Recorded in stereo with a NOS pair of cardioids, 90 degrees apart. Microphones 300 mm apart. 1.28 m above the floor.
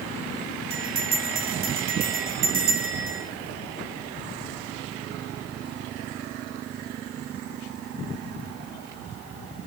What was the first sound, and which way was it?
A bell, 65° right.